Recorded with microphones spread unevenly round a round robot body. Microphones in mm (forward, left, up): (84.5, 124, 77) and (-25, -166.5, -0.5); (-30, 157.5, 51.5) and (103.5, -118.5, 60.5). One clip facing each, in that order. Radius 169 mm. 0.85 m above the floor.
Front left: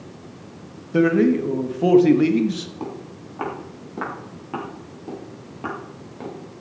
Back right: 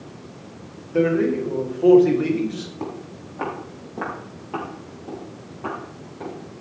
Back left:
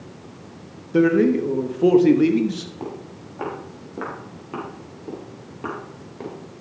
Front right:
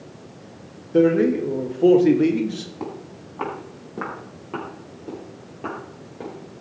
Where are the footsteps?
5° left, 6 m; by 6.3 s 45° left, 6 m.